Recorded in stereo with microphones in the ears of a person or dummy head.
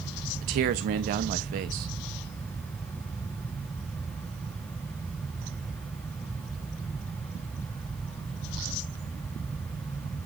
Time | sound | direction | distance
0.4 | a man speaking | 40° right (ahead or behind) | 0.9 m